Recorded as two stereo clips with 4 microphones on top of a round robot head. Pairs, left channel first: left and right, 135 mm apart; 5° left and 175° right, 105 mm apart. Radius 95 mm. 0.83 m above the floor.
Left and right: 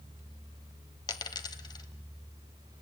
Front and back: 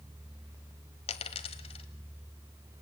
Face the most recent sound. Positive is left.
turn(degrees=30)